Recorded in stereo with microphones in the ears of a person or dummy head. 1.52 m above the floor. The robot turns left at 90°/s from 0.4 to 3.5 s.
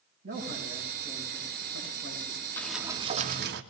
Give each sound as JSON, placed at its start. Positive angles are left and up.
{"t": 0.2, "sound": "a man speaking", "azimuth_deg": -125, "distance_m": 9.0}
{"t": 2.6, "sound": "a sliding door", "azimuth_deg": 10, "distance_m": 2.0}